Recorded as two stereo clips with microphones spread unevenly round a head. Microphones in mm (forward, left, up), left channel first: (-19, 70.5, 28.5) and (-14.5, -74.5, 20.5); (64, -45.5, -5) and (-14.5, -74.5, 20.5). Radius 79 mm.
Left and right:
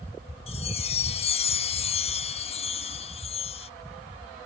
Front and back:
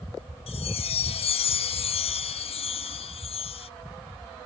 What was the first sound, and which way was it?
A chime, 40° left.